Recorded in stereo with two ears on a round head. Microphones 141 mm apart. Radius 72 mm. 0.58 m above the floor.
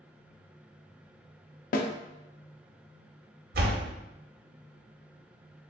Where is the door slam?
65° right (ahead or behind), 0.9 m.